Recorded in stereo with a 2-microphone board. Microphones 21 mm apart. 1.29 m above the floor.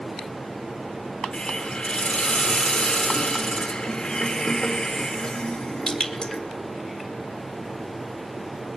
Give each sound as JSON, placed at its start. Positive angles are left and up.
{"t": 1.3, "sound": "a hiss", "side_deg": 50, "distance_m": 1.9}